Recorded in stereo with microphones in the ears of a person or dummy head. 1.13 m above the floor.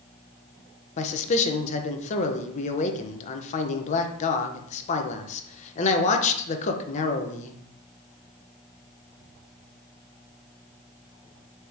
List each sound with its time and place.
1.0 s a man speaking: 35° left (ahead or behind), 0.6 m